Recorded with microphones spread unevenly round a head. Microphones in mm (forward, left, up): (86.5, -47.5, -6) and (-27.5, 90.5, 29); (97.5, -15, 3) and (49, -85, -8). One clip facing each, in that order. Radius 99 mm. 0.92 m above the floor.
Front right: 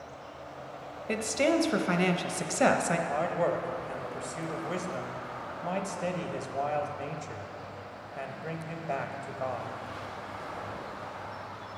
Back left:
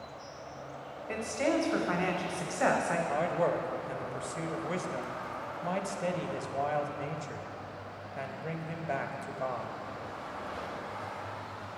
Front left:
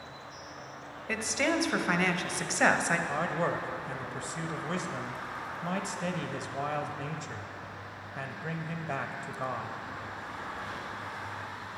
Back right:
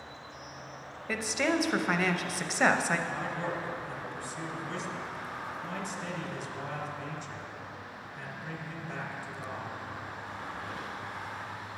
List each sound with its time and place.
1.1 s a woman speaking: 45° right, 0.7 m
3.1 s a man speaking: 40° left, 0.8 m